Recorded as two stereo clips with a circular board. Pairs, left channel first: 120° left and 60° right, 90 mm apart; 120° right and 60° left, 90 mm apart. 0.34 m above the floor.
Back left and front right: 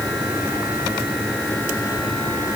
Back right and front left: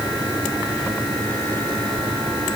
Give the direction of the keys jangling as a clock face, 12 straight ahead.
No keys jangling in this recording.